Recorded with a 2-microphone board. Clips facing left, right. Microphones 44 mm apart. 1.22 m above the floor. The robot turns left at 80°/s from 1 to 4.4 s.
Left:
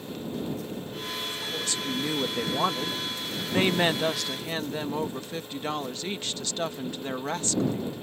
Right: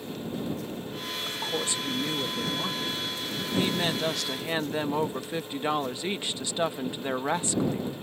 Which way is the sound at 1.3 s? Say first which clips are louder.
Right 5 dB; 125° right.